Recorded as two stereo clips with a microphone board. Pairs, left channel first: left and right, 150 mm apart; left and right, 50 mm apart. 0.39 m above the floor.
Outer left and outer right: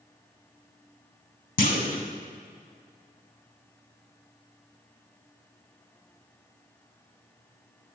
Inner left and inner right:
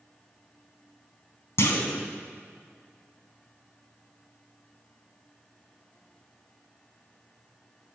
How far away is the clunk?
About 0.9 m.